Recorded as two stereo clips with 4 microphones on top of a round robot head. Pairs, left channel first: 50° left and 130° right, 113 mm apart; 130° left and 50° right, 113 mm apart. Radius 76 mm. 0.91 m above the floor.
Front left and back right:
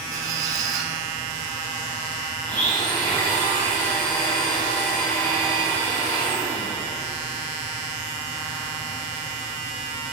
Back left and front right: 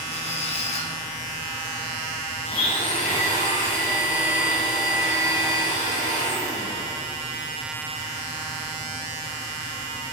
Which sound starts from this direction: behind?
A squeak, at 0.1 s.